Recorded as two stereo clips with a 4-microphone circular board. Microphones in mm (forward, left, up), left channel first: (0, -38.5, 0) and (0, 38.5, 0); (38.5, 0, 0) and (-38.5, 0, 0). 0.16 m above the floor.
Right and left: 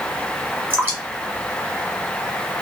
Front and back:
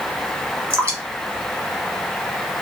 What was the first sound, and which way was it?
Dripping, 140° left.